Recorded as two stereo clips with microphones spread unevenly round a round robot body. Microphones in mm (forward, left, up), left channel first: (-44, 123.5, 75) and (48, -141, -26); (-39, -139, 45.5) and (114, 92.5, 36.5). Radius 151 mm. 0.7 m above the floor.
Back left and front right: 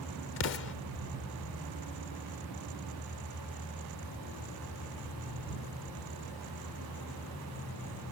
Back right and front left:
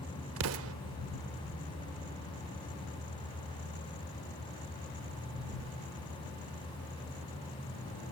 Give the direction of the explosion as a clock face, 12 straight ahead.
9 o'clock.